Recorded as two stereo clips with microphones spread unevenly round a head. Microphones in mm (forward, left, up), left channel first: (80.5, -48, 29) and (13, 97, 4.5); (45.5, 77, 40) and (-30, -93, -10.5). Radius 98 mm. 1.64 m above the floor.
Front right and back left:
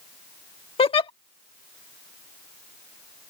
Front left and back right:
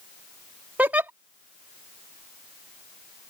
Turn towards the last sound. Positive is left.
turn(degrees=-20)